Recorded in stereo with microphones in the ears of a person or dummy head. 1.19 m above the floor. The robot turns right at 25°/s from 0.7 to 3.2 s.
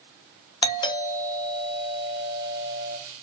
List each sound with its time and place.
0.6 s a doorbell: 150° left, 0.8 m; by 3.0 s 150° right, 0.8 m